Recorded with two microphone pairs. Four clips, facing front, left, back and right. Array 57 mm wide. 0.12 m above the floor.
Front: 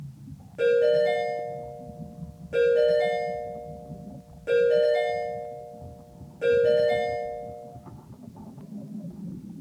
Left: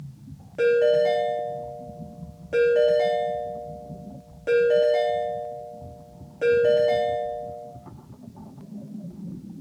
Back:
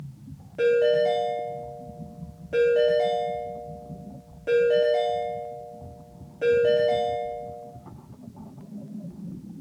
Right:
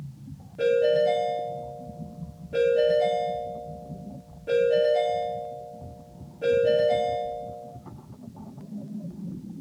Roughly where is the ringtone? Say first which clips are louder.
Left 2 dB, even; left.